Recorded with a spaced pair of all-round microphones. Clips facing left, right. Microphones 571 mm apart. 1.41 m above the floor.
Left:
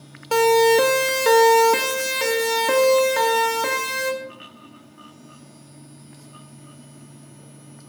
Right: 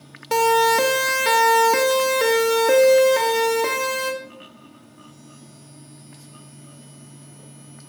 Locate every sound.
0.3 s a siren: 45° right (ahead or behind), 2 m; by 4.1 s 45° left (ahead or behind), 3.5 m